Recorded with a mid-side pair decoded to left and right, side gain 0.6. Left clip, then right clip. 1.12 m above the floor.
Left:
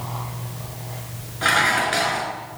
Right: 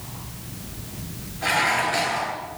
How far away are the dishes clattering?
About 9.5 m.